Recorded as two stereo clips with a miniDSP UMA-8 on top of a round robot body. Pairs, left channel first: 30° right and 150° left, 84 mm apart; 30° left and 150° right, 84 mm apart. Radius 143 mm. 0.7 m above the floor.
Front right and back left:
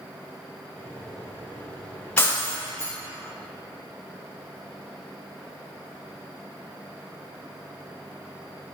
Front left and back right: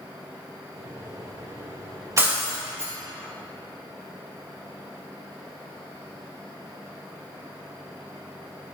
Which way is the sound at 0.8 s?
105° right.